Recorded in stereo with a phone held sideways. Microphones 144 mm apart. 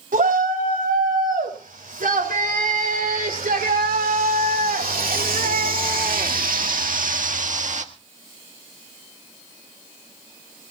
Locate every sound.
0.1 s a shout: 75° right (ahead or behind), 5 m; by 7.9 s 55° right (ahead or behind), 1.5 m